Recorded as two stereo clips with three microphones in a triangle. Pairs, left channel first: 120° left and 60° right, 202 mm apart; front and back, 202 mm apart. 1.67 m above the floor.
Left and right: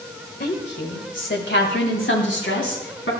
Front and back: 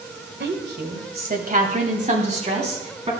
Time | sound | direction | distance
0.4 | a woman speaking | 155° left | 1.5 m